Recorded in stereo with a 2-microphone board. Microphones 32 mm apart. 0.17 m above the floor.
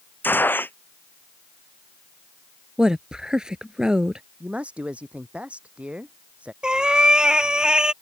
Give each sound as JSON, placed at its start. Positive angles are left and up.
{"t": 0.2, "sound": "a gunshot", "side_deg": 85}
{"t": 2.8, "sound": "a woman speaking", "side_deg": -20}
{"t": 4.4, "sound": "a man speaking", "side_deg": -40}
{"t": 6.6, "sound": "a cat meowing", "side_deg": -25}